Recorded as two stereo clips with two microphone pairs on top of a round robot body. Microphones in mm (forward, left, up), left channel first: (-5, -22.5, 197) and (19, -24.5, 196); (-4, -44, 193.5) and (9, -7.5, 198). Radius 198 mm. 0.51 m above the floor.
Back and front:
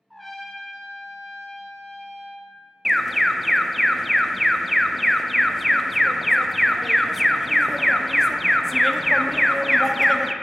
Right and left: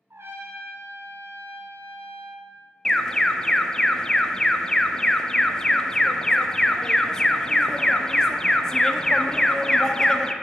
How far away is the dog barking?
No dog barking in this recording.